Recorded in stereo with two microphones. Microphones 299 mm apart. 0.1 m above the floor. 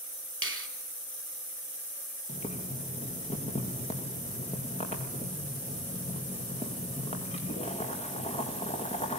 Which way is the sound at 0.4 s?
45° right (ahead or behind).